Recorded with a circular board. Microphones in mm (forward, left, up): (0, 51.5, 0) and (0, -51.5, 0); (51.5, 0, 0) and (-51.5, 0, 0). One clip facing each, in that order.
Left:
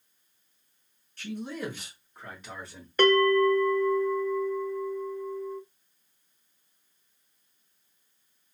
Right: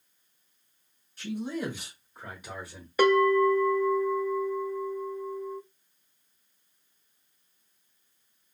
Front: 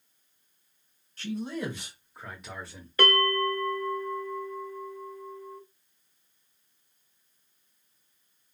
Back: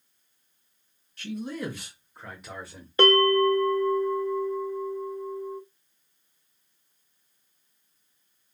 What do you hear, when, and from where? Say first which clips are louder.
1.2 s a man speaking: right 3 dB, even; 20° right, 1.5 m; by 2.9 s 155° right, 1.2 m
3.0 s a bell: even, back 6 dB; 160° right, 0.5 m